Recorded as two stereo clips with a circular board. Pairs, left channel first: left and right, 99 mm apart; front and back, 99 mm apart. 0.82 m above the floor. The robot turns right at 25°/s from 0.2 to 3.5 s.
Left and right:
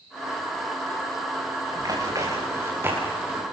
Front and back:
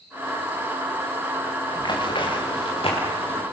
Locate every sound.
1.7 s running footsteps: 40° right, 7 m; by 3.4 s 15° right, 7.5 m